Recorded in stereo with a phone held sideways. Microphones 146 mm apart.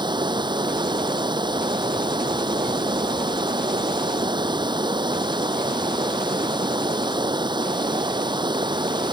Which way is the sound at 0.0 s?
30° right (ahead or behind).